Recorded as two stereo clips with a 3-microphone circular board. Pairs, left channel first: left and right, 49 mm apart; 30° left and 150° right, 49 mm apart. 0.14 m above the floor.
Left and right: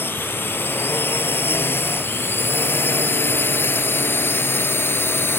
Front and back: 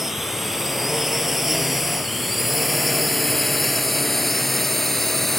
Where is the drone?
125° left; by 5.4 s 115° left.